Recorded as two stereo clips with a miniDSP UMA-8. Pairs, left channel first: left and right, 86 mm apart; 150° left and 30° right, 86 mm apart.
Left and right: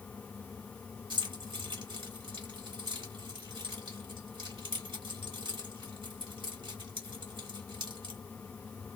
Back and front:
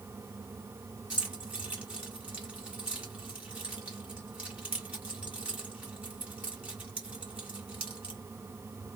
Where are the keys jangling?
105° right, 1.4 m.